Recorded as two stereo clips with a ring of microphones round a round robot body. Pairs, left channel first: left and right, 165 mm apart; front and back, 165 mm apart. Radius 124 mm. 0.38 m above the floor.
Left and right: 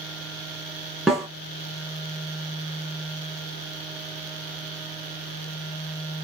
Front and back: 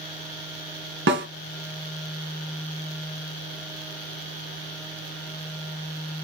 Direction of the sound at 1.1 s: Straight behind.